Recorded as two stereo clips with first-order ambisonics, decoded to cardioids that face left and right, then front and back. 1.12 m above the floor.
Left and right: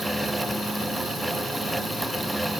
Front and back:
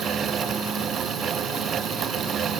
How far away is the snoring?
I don't hear snoring.